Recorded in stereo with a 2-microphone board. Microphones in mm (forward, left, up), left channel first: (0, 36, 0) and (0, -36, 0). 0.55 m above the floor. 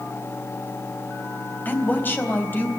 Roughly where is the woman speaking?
Left.